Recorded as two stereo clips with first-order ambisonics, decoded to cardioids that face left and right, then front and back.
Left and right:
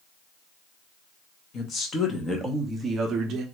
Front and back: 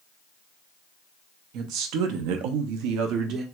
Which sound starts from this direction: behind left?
A woman speaking, at 1.5 s.